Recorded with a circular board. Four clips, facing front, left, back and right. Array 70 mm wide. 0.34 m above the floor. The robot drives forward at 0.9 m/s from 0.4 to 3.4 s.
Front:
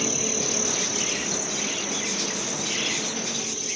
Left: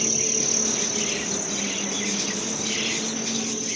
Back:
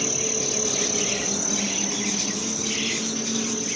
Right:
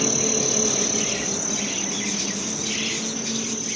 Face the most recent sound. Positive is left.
turn(degrees=-170)